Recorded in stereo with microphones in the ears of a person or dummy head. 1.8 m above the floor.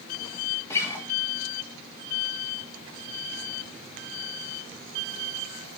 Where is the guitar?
15° left (ahead or behind), 3 m.